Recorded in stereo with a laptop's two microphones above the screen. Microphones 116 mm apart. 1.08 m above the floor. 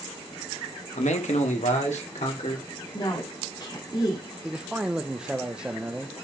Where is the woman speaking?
40° left (ahead or behind), 2 m.